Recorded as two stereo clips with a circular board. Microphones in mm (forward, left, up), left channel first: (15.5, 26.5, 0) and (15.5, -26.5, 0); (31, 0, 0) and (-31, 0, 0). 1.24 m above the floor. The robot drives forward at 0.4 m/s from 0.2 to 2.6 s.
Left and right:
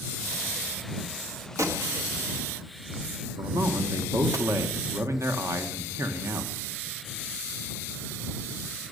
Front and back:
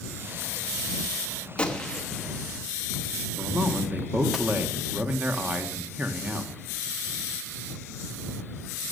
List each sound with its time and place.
1.6 s a gunshot: 75° right, 1.2 m; by 4.4 s 90° right, 1.2 m
3.4 s a man speaking: 115° right, 1.1 m